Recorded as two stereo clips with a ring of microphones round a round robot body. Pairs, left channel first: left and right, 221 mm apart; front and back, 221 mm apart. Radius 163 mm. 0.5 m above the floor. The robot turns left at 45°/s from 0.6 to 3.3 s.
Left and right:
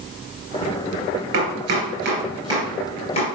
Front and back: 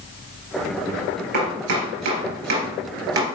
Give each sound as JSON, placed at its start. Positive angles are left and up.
{"t": 1.3, "sound": "chopping", "azimuth_deg": -115, "distance_m": 3.0}